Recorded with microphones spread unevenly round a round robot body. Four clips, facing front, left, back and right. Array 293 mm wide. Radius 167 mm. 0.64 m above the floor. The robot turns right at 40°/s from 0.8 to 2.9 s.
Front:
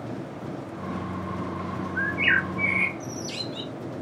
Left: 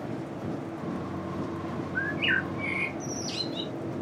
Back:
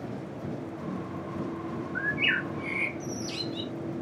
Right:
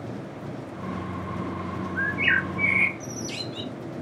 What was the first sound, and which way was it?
A bird, 175° left.